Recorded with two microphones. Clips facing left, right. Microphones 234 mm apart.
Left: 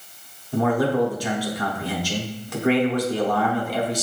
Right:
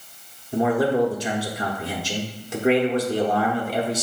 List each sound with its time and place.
0.5 s a man speaking: 25° right (ahead or behind), 0.8 m